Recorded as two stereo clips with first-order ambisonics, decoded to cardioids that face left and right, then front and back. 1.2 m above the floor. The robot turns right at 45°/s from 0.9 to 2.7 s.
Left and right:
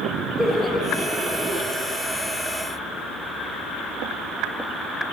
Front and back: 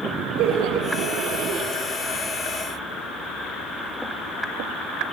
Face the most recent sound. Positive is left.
turn(degrees=-105)